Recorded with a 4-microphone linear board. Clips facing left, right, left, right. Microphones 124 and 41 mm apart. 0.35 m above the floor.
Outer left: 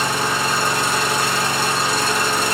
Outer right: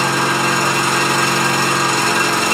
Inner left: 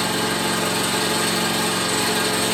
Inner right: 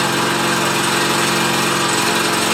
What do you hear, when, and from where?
0.0 s an engine running: 70° right (ahead or behind), 1.2 m